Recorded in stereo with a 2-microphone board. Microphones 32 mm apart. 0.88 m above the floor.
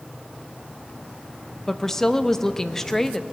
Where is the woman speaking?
10° left (ahead or behind), 0.6 m.